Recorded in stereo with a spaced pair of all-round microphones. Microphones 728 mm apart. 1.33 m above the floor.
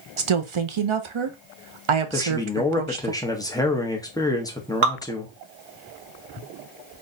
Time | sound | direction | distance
0.2 | a woman speaking | 45° right (ahead or behind) | 0.7 m
2.1 | a man speaking | 5° left (ahead or behind) | 0.8 m
4.8 | dripping | 80° right | 1.2 m